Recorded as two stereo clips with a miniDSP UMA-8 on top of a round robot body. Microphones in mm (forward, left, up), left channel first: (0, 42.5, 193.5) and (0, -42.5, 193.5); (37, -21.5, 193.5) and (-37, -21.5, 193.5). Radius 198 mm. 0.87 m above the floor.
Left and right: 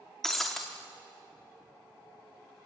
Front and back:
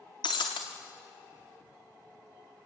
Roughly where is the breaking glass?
Ahead.